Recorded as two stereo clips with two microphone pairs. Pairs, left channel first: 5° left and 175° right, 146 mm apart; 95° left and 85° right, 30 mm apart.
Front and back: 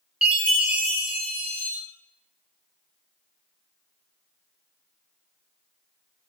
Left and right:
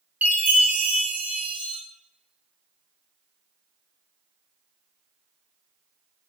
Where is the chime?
90° right, 0.6 m.